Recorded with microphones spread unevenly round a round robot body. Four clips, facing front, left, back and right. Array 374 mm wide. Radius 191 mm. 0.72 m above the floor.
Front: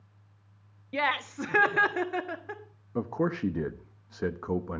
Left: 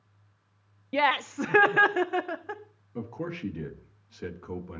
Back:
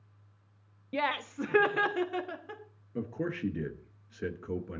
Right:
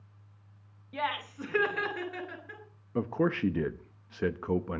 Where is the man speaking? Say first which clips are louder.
Right 7 dB, front 6 dB; 60° right, 1.1 m.